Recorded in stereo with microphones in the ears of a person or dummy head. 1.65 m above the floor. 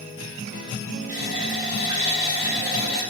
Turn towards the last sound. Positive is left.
turn(degrees=-20)  # may be behind; listen again after turning